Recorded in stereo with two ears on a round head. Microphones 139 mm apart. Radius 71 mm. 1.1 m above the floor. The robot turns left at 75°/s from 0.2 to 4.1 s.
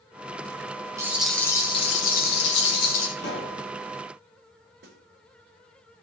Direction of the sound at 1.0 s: 160° right.